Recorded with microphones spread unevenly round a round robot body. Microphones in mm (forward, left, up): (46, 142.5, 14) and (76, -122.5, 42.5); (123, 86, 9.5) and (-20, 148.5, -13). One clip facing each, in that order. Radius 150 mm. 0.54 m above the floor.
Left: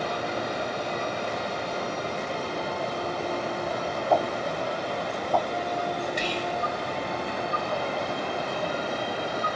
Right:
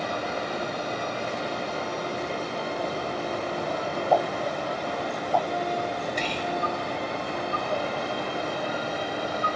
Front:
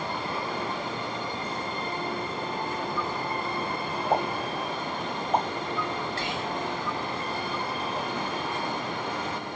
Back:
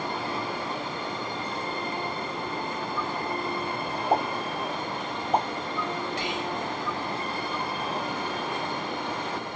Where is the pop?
95° left, 1.9 m.